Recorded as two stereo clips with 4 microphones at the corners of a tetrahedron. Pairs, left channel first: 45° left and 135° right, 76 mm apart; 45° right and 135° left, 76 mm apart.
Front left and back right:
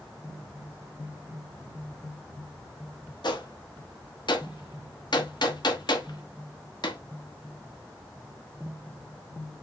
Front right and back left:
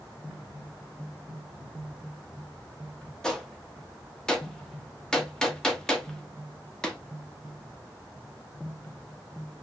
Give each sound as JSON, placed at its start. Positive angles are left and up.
{"t": 3.2, "sound": "a gunshot", "azimuth_deg": 35, "distance_m": 1.0}